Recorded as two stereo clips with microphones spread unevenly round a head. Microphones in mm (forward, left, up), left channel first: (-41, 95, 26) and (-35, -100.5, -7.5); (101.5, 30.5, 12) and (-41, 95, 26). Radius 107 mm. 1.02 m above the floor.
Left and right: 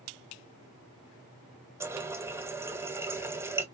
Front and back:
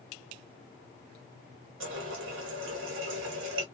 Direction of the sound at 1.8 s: 170° right.